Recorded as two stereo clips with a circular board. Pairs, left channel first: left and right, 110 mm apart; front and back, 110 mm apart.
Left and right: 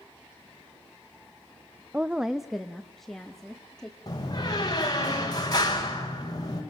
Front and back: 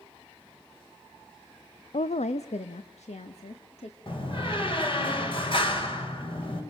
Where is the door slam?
40° left, 4 m.